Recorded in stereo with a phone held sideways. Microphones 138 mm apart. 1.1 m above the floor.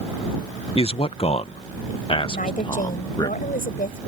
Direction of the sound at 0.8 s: 45° left (ahead or behind).